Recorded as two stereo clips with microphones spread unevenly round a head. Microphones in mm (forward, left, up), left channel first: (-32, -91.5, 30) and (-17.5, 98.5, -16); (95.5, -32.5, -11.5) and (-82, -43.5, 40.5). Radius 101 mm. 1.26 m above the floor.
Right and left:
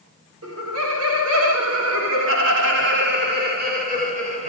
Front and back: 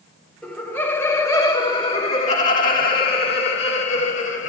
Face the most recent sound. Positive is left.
turn(degrees=25)